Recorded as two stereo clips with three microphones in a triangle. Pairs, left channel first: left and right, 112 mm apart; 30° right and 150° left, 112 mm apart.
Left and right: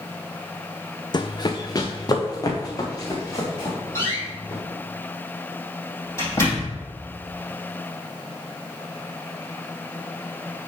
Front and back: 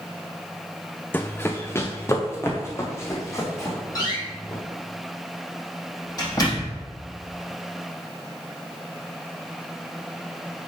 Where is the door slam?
25° left, 3.5 m.